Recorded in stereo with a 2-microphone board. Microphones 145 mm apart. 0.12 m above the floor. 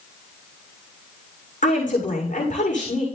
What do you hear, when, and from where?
1.6 s a woman speaking: 60° left (ahead or behind), 7 m